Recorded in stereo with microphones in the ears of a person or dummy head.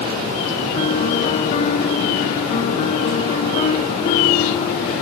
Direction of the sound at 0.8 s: 30° left (ahead or behind).